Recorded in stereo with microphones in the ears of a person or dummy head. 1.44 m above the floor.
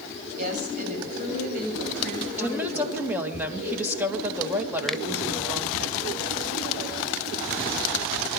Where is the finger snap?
5° left (ahead or behind), 0.9 m.